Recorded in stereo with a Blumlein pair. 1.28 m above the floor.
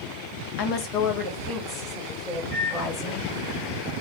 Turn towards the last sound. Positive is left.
turn(degrees=40)